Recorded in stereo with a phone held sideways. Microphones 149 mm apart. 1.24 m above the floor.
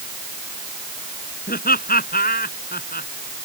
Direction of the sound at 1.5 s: 85° left.